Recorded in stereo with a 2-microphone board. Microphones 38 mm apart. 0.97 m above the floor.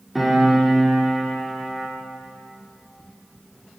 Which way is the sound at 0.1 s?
Centre (ahead or behind).